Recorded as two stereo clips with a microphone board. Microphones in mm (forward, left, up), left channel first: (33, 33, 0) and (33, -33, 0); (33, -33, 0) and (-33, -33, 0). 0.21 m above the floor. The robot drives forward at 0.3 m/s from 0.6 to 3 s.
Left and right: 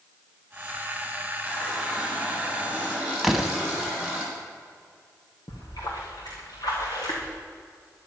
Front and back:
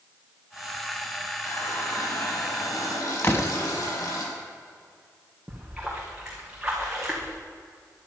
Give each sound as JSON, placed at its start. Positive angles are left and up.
{"t": 1.4, "sound": "a running tap", "azimuth_deg": -15, "distance_m": 5.5}
{"t": 3.2, "sound": "a door slam", "azimuth_deg": -5, "distance_m": 1.1}
{"t": 5.5, "sound": "a splash", "azimuth_deg": 95, "distance_m": 3.5}